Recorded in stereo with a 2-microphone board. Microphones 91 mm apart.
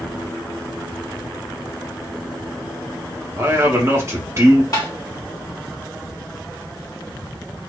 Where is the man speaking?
35° right (ahead or behind), 1.0 m.